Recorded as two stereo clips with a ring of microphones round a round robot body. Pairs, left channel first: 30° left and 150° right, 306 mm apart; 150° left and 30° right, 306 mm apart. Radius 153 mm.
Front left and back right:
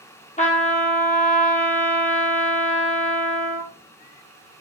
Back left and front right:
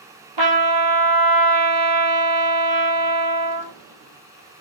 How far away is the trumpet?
About 2.5 m.